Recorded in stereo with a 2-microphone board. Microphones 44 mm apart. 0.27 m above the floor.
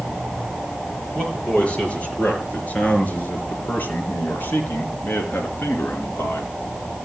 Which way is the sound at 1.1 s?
25° left (ahead or behind).